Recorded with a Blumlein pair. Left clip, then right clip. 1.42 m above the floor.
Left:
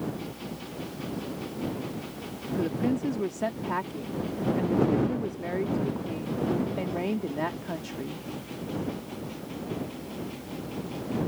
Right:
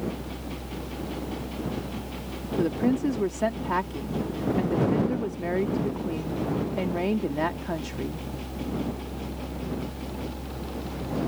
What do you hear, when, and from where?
0.0 s a fan: 40° right
2.6 s a woman speaking: 10° right